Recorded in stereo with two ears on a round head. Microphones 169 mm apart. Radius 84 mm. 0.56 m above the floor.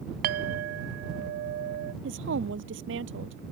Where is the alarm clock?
No alarm clock in this recording.